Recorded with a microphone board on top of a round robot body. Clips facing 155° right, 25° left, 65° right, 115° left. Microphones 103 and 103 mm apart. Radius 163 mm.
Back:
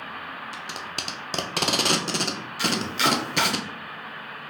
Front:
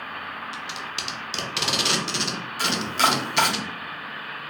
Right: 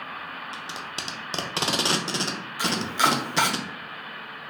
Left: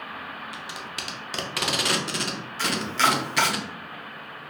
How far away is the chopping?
About 0.7 m.